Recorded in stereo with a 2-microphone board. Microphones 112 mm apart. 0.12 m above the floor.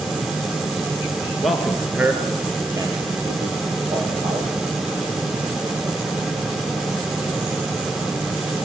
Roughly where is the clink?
I don't hear a clink.